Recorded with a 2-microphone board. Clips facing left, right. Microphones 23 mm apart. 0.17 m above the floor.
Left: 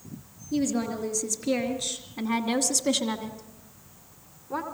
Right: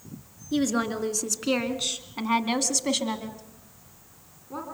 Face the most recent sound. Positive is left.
turn(degrees=25)  # may be behind; listen again after turning